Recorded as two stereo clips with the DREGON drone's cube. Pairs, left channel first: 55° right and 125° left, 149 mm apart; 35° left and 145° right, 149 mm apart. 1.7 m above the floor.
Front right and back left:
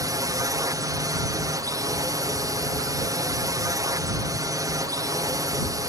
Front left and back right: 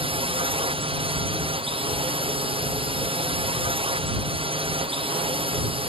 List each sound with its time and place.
0.0 s a drone: straight behind